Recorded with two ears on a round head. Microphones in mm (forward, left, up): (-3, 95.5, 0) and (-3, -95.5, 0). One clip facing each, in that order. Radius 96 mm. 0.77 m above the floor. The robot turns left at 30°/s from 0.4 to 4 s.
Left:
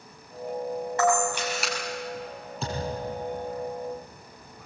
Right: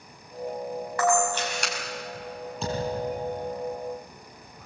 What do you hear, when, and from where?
1.0 s a camera shutter: 20° left (ahead or behind), 5 m; by 1.7 s centre (ahead or behind), 5 m
2.6 s a thud: centre (ahead or behind), 7 m; by 3.2 s 20° right (ahead or behind), 7 m